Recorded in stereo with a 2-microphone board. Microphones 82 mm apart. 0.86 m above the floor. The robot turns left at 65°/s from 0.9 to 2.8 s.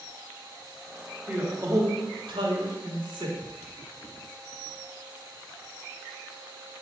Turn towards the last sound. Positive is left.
turn(degrees=-115)